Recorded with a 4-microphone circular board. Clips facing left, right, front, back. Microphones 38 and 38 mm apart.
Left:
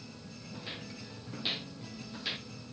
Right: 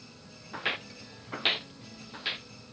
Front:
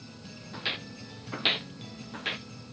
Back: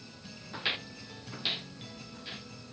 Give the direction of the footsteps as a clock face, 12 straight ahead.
3 o'clock.